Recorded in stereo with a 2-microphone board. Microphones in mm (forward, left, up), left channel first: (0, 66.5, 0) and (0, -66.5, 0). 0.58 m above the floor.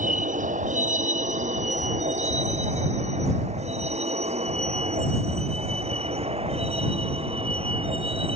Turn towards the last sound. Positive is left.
turn(degrees=-45)  # may be behind; listen again after turning